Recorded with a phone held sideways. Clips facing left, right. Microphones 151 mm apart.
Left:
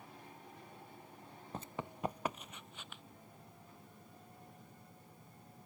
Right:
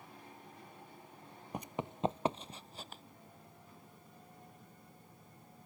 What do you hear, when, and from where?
1.5 s running footsteps: 15° right (ahead or behind); by 3.0 s 35° right (ahead or behind)